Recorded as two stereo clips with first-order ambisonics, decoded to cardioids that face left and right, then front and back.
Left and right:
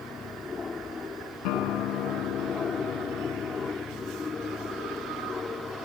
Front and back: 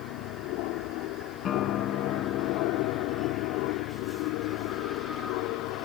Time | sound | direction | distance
0.0 | an aircraft | 20° left | ?
1.4 | a guitar | 60° left | ?